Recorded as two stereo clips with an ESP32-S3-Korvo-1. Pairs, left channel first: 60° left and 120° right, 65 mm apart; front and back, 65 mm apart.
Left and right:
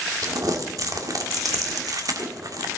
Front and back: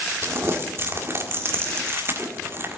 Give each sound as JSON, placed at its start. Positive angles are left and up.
{"t": 0.2, "sound": "crumpling", "azimuth_deg": -135, "distance_m": 1.6}